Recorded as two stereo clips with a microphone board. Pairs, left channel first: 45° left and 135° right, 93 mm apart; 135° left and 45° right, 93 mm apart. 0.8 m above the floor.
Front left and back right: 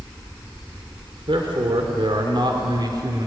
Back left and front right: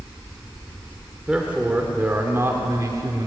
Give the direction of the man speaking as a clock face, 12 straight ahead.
4 o'clock.